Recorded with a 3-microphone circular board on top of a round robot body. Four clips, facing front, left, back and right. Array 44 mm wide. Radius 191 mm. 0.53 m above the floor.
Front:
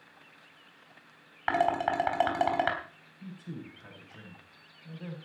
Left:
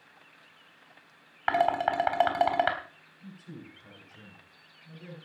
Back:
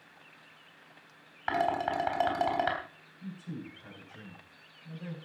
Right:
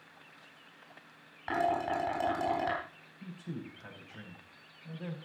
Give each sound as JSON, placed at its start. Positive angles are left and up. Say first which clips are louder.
{"t": 1.5, "sound": "dishes clattering", "louder": "left 5 dB, front 2 dB", "azimuth_deg": 60, "distance_m": 4.0}
{"t": 3.2, "sound": "a man speaking", "louder": "right 3 dB, back 1 dB", "azimuth_deg": -70, "distance_m": 4.5}